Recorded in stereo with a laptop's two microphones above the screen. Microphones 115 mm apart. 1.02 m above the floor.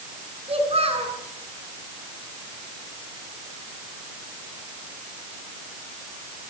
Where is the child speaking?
60° right (ahead or behind), 6 m.